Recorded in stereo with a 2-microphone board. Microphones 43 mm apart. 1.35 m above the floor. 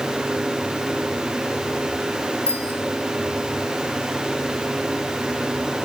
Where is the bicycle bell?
85° right, 6.5 m.